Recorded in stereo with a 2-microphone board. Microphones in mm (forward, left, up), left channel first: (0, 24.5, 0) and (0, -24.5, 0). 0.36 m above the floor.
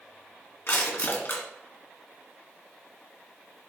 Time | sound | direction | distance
0.7 | crushing | 60° left (ahead or behind) | 2.5 m